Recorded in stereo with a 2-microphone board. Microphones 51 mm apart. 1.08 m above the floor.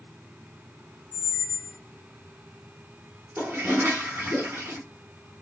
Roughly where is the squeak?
Left.